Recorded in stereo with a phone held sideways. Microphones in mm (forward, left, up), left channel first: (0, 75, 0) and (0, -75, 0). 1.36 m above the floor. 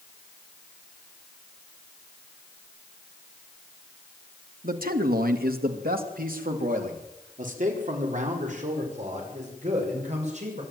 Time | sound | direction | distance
4.6 | a man speaking | 70° right (ahead or behind) | 2.0 m